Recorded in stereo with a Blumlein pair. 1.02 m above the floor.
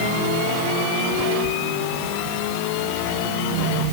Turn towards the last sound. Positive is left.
No sound to turn to.